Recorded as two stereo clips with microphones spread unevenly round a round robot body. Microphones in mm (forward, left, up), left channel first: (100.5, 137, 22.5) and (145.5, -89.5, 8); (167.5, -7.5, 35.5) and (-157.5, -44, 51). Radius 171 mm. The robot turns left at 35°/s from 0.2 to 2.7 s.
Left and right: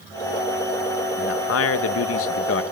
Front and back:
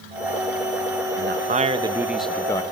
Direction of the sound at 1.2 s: 130° left.